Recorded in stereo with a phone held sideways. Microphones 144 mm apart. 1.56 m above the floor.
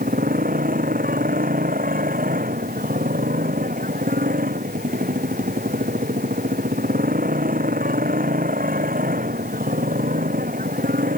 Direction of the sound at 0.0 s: 85° right.